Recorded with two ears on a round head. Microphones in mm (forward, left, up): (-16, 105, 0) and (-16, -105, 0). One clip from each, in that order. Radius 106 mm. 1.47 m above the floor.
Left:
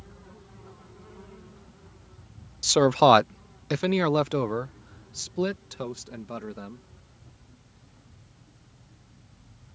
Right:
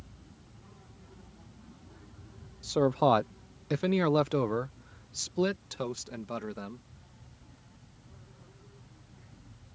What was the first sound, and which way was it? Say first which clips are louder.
A man speaking: left 7 dB; 65° left (ahead or behind).